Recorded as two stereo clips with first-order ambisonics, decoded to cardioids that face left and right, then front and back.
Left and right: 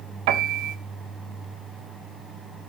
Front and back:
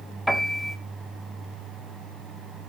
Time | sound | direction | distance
0.3 | a piano | 90° right | 1.5 m